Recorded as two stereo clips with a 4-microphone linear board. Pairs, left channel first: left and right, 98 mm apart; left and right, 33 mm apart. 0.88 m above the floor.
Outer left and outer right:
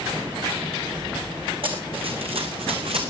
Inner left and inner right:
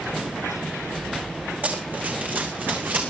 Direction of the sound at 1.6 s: 65° right (ahead or behind).